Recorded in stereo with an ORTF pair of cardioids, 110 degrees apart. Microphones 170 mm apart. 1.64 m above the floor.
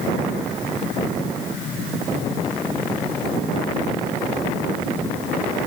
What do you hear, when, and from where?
Only background noise.